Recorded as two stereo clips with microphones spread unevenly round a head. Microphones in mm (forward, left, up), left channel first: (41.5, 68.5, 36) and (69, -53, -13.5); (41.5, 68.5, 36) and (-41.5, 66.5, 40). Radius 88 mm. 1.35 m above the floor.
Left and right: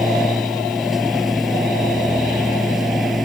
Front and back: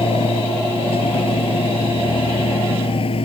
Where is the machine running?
15° left.